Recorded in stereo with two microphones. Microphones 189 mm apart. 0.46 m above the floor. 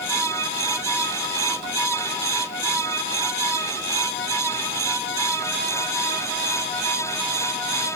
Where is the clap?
No clap in this recording.